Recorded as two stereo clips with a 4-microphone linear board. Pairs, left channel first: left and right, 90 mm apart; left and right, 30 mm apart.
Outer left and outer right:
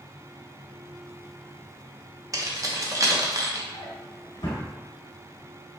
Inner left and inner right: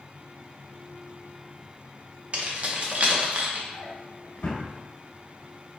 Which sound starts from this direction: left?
A drawer, at 3.7 s.